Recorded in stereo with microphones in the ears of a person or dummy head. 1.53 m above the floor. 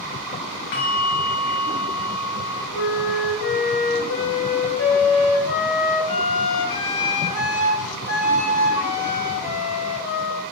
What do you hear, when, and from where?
0.7 s a bell: 60° left (ahead or behind), 0.7 m
2.7 s a flute: 60° left (ahead or behind), 1.0 m